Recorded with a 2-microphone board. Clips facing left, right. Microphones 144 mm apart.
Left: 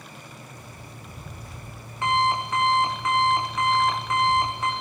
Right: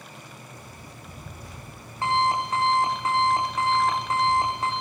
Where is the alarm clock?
35° right (ahead or behind), 10 m.